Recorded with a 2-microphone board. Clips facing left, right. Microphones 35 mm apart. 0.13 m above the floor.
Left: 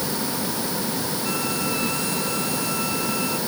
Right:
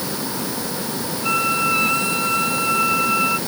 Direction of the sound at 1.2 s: 50° right (ahead or behind).